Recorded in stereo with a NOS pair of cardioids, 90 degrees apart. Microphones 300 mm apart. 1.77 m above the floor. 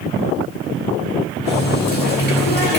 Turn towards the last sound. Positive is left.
turn(degrees=35)